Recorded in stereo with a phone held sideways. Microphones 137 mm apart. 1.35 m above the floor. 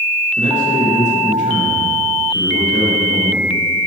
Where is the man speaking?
65° left (ahead or behind), 2.5 m.